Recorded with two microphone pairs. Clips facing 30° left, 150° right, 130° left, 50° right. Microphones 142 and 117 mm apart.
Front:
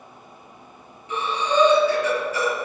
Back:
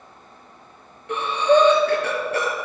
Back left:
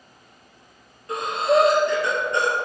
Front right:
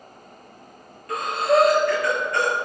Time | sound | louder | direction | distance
1.1 | breathing | back 6 dB, even | 165° right | 2.5 m